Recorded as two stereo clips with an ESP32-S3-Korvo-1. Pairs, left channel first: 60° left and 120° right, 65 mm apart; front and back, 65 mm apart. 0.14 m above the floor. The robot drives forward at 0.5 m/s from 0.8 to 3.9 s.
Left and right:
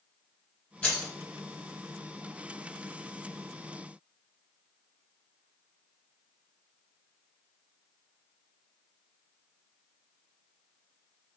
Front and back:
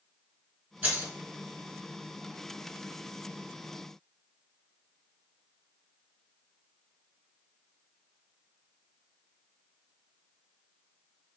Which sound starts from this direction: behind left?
Keys jangling, at 0.8 s.